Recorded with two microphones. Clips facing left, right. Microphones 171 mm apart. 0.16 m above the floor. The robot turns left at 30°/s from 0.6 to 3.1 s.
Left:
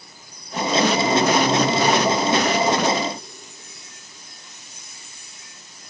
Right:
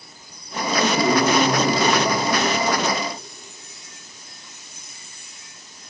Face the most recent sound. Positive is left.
turn(degrees=-165)